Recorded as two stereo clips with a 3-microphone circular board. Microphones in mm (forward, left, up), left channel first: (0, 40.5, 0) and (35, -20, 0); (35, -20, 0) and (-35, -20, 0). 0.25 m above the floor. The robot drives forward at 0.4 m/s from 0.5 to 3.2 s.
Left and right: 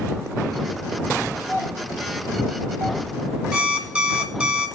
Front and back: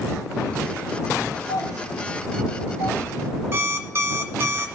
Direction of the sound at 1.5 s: 155° left.